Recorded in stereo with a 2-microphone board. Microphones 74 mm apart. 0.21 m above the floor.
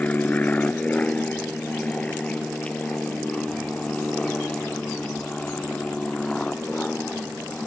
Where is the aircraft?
20° left (ahead or behind); by 7.7 s 10° left (ahead or behind).